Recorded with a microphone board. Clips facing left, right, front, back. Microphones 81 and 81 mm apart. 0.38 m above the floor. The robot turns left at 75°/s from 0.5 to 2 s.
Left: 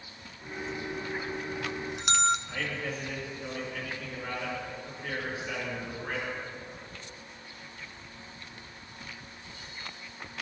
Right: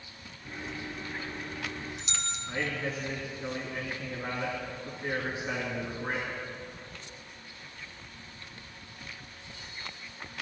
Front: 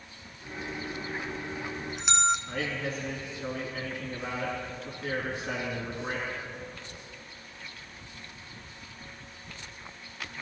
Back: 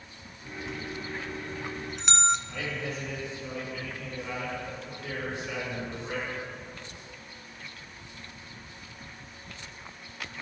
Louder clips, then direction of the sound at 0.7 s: Left 4 dB, even; 175° right.